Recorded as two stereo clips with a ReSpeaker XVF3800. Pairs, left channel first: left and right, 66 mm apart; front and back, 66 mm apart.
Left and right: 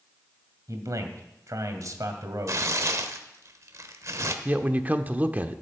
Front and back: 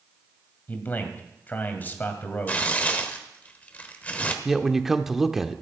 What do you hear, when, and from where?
0.7 s a man speaking: 60° right, 2 m
2.5 s tearing paper: 65° right, 1.3 m
4.5 s a man speaking: 105° right, 0.8 m